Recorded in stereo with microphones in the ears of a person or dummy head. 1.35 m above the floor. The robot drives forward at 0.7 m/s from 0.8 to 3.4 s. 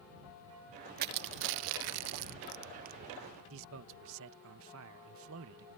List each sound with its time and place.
1.0 s crushing: 50° right (ahead or behind); by 3.0 s 45° right (ahead or behind)
3.5 s a man speaking: 75° right (ahead or behind)